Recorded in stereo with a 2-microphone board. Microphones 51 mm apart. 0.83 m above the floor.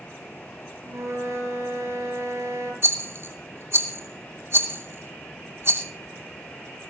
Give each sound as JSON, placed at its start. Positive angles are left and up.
{"t": 0.8, "sound": "a flute", "side_deg": -65, "distance_m": 5.5}
{"t": 2.8, "sound": "a rattle", "side_deg": -55, "distance_m": 2.5}